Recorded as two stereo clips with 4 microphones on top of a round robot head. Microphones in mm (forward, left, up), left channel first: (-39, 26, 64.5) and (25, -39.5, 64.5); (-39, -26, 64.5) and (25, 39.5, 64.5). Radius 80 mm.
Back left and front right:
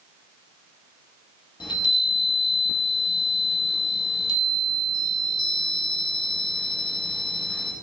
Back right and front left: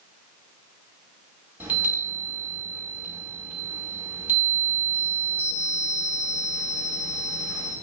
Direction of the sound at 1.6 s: 110° left.